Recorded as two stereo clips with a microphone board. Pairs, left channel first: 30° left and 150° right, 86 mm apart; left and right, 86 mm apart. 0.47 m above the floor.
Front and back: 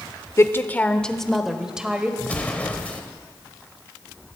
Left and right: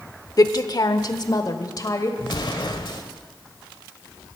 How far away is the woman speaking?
About 1.0 m.